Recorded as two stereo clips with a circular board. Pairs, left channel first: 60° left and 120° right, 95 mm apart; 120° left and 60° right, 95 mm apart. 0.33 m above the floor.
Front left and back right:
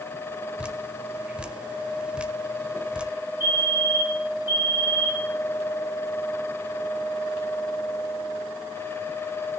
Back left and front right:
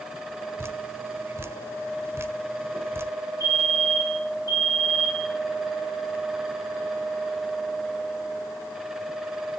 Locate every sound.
0.6 s dripping: 60° right, 1.0 m
3.4 s a fire alarm: 170° left, 5.5 m